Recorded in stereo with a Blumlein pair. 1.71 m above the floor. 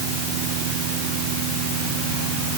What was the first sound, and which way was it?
Only background noise.